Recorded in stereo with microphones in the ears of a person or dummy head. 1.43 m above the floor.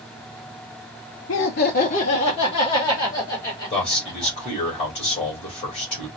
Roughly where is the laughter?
Left.